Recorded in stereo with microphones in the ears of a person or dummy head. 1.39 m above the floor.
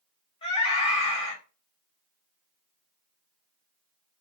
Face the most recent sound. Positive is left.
turn(degrees=30)  # may be behind; listen again after turning